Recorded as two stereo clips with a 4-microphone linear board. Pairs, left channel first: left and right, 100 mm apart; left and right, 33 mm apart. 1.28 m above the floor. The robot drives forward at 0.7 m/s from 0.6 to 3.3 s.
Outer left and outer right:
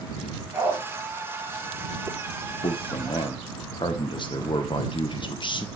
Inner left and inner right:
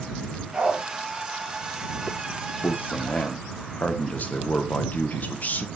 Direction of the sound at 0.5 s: 15° right (ahead or behind).